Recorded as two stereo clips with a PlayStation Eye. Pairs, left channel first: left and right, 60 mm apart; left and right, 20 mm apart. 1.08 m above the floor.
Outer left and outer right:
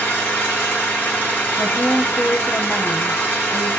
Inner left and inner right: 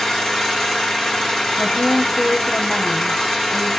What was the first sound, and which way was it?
An engine running, 40° left (ahead or behind).